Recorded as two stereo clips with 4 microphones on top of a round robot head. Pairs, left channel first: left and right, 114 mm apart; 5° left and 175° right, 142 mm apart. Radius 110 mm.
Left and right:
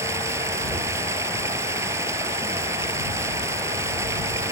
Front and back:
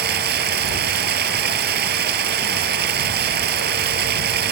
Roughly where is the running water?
Behind.